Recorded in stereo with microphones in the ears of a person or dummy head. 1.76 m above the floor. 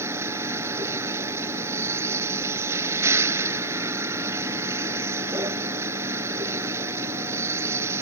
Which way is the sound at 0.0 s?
20° right (ahead or behind).